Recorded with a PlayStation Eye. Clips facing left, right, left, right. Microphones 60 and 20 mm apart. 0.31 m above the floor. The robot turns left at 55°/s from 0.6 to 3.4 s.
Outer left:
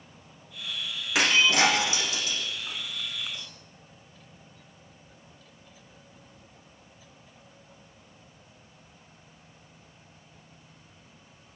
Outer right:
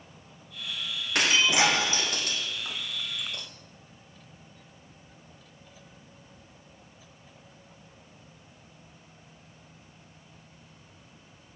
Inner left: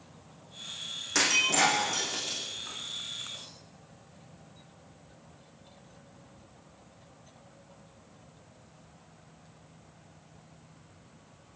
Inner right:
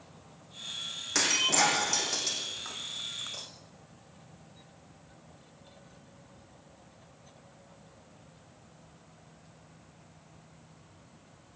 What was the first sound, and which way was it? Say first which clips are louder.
Breaking glass: outer left 2 dB, inner left 1 dB; 5° left (ahead or behind).